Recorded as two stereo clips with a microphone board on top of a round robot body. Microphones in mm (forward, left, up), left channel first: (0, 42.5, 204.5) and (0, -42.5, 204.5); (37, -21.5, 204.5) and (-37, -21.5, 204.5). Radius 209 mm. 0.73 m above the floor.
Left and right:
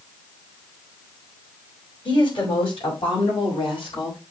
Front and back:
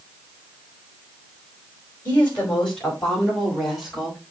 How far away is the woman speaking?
About 4.5 m.